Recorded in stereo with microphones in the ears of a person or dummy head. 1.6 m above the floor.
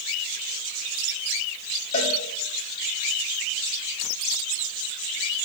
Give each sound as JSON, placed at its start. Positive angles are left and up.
{"t": 1.9, "sound": "a cowbell", "side_deg": 40, "distance_m": 2.0}